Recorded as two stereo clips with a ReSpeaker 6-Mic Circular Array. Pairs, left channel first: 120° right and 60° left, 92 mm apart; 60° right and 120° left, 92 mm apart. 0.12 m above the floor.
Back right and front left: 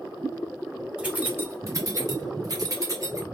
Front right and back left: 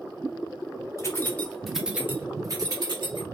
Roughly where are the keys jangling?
Ahead.